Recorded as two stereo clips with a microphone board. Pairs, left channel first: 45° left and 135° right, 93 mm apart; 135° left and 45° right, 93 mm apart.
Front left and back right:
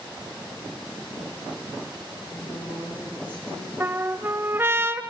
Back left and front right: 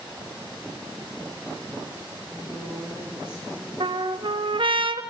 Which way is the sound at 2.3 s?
75° left.